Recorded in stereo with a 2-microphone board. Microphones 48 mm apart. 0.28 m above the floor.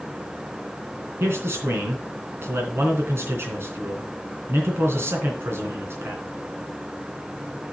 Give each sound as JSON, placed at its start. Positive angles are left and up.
{"t": 1.2, "sound": "a man speaking", "side_deg": -65, "distance_m": 3.0}